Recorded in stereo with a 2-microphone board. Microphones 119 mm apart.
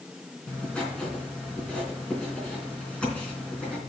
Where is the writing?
10° left (ahead or behind), 3.5 m.